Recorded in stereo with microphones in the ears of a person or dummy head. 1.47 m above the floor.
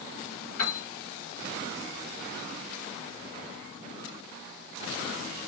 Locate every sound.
0.6 s a piano: 45° left (ahead or behind), 1.7 m